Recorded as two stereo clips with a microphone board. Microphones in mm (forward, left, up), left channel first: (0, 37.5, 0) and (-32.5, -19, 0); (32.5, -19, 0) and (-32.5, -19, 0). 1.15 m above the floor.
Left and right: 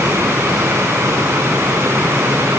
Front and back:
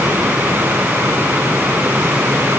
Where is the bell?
I don't hear a bell.